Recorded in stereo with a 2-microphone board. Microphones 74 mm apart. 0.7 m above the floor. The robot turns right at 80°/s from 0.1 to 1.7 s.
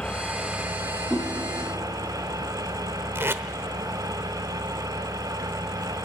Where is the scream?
I don't hear a scream.